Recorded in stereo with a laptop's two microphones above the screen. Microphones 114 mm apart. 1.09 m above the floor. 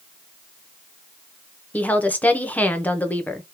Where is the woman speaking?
15° left (ahead or behind), 0.8 m.